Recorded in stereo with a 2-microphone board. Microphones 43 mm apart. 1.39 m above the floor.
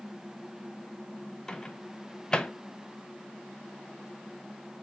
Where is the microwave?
20° left (ahead or behind), 0.5 m.